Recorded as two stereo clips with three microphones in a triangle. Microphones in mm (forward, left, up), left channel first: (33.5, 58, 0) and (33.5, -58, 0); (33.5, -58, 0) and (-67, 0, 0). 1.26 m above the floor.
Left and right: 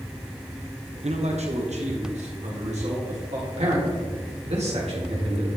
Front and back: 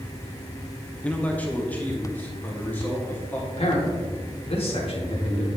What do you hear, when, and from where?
1.0 s a man speaking: 110° right, 0.8 m; by 3.4 s 105° right, 2.5 m
3.5 s a man speaking: 65° right, 1.9 m